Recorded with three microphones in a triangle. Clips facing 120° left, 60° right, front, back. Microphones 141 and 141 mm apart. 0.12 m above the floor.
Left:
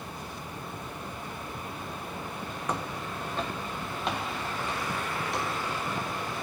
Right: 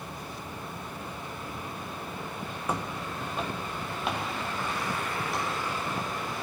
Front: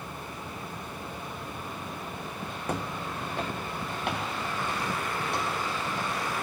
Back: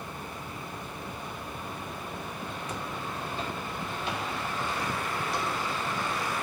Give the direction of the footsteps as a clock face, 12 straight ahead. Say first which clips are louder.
Right 1 dB, front 6 dB; 11 o'clock.